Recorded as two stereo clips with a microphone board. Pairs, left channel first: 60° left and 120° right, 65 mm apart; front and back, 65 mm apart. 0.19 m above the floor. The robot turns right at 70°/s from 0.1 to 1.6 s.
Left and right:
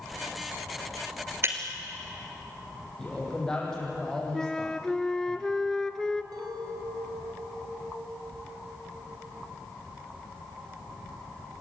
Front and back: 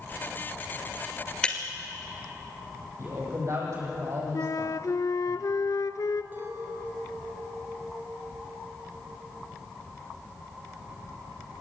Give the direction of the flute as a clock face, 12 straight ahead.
1 o'clock.